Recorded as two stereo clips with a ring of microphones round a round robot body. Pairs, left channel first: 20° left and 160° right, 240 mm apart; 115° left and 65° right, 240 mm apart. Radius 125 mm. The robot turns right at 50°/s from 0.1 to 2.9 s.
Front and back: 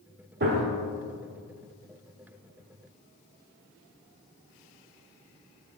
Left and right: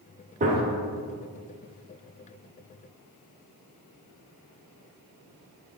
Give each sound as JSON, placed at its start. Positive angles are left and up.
{"t": 0.4, "sound": "a gunshot", "azimuth_deg": -120, "distance_m": 1.3}